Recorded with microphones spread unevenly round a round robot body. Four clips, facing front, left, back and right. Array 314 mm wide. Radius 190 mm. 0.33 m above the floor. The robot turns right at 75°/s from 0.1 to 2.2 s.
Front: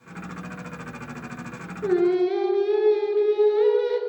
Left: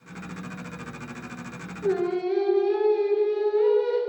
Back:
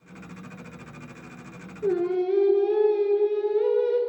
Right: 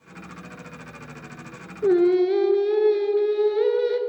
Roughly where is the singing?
Right.